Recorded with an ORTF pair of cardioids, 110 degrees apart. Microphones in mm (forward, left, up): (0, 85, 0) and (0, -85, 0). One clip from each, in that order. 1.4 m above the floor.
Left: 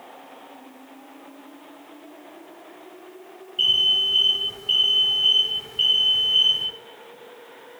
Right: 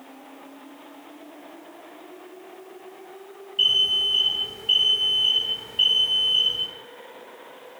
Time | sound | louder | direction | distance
3.6 | an alarm | left 1 dB | straight ahead | 5.5 m